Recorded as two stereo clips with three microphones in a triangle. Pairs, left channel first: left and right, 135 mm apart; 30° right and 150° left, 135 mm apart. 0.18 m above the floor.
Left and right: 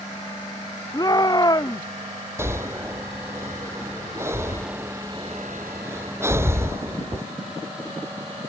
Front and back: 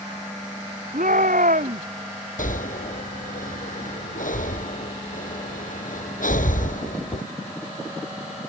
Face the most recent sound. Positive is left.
turn(degrees=-20)